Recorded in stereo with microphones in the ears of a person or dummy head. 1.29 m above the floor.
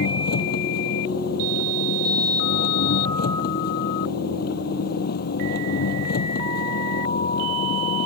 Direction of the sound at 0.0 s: 60° left (ahead or behind).